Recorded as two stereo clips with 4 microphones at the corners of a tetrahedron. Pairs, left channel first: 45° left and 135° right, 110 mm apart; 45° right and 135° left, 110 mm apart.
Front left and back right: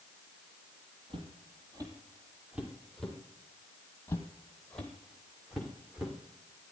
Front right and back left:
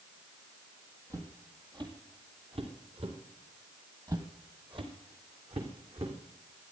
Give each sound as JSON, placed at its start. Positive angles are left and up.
{"t": 1.1, "sound": "footsteps", "azimuth_deg": -165, "distance_m": 3.0}
{"t": 4.1, "sound": "footsteps", "azimuth_deg": 105, "distance_m": 1.8}